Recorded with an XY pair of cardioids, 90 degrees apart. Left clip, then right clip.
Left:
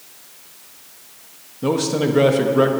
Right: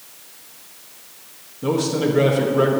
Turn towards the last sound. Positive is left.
turn(degrees=35)